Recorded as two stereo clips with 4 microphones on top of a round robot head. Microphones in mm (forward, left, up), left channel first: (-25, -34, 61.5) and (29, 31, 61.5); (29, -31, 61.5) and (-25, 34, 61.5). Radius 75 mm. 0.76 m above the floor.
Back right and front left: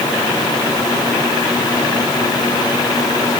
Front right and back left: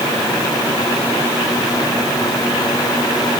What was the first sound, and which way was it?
Only background noise.